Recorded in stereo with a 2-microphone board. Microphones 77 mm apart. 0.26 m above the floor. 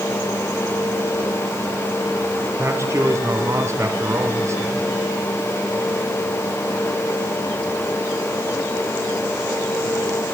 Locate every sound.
2.6 s a man speaking: 40° right (ahead or behind), 2.5 m